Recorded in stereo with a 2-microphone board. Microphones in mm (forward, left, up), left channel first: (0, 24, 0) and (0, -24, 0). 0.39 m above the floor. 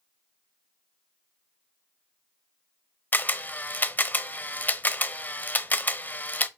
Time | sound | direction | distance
3.1 | a camera shutter | 40° left (ahead or behind) | 0.7 m